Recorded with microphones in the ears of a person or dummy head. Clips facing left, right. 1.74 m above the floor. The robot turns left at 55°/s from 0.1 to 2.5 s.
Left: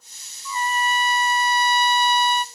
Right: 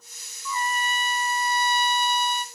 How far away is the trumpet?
About 0.6 m.